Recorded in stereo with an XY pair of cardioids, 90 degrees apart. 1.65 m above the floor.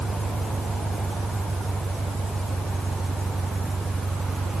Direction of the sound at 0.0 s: 10° right.